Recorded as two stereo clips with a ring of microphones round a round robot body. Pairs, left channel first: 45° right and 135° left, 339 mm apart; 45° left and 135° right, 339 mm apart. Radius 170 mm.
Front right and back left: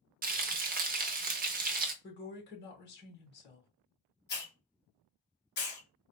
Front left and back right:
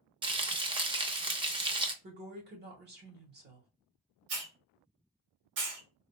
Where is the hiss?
100° right, 1.4 m.